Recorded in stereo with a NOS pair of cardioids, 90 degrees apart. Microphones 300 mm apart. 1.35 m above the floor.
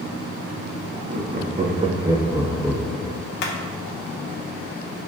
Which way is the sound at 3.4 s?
70° left.